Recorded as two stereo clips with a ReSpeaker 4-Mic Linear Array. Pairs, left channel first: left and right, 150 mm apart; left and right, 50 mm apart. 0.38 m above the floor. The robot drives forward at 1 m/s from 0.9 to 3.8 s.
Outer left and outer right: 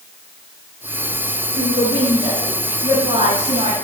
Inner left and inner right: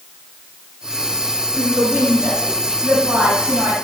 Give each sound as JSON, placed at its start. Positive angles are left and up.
{"t": 1.6, "sound": "a woman speaking", "side_deg": -50, "distance_m": 5.5}